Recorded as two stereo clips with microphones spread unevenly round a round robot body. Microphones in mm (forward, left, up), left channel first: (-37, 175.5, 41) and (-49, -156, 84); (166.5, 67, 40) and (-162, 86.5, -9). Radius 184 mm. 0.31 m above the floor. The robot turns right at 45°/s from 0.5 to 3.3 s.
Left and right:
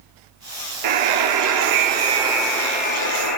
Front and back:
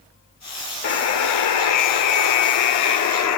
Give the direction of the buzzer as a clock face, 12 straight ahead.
2 o'clock.